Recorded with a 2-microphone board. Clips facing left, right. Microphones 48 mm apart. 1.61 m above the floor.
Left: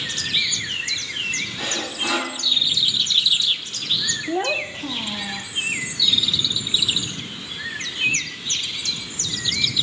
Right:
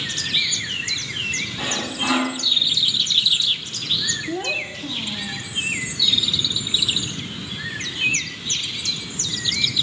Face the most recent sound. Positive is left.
turn(degrees=30)  # may be behind; listen again after turning